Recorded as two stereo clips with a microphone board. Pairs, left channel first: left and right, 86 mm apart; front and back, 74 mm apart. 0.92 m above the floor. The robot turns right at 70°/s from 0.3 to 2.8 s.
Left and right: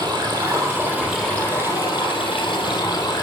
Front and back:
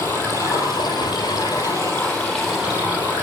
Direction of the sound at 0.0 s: 60° right.